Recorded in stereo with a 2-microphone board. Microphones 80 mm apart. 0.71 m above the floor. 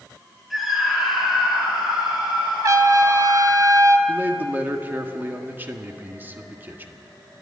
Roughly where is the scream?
Centre.